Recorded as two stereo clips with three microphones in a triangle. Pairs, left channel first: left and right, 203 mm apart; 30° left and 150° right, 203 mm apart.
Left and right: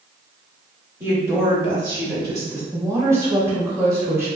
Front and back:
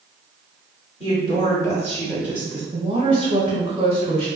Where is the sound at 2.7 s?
150° right, 1.1 m.